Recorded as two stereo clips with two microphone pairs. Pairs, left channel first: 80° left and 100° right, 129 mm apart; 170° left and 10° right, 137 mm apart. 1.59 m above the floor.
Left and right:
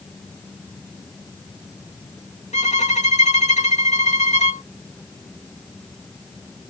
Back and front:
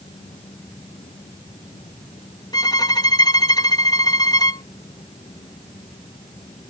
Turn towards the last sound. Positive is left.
turn(degrees=105)